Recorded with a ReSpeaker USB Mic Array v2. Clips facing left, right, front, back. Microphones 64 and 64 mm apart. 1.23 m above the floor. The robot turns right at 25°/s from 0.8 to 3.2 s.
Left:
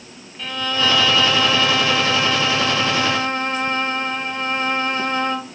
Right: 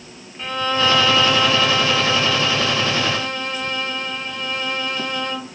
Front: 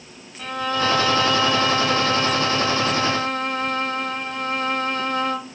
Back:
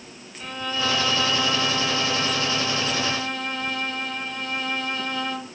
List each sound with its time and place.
0.4 s a violin: 25° right, 1.2 m; by 5.4 s 35° left, 1.2 m